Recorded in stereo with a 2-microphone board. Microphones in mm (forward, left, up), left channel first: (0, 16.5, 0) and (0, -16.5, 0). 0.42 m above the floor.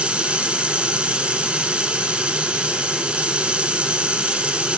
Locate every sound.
0.0 s running water: 35° right (ahead or behind), 0.8 m